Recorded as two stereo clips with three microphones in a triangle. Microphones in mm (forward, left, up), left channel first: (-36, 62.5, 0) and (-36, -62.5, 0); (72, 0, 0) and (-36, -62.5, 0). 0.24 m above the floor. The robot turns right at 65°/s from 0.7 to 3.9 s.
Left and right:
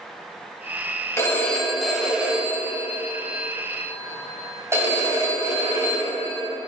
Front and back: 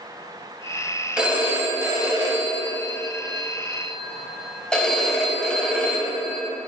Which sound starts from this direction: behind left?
A phone ringing, at 1.2 s.